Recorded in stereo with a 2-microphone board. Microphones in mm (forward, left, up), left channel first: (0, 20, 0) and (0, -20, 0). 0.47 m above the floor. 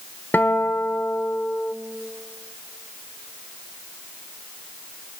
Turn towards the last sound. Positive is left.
turn(degrees=55)  # may be behind; listen again after turning